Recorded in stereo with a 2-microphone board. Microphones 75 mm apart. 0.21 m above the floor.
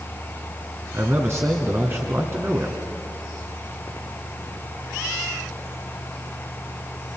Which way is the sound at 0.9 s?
40° right (ahead or behind).